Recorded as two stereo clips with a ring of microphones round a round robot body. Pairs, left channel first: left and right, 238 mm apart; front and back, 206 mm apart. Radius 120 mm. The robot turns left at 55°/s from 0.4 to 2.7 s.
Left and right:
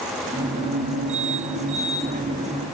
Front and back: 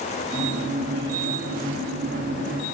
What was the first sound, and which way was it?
Only background noise.